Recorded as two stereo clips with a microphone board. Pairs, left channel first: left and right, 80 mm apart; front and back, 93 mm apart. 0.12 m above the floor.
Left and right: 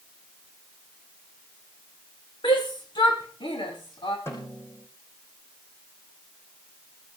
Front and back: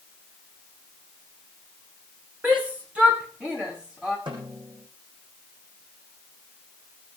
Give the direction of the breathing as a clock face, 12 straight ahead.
No breathing in this recording.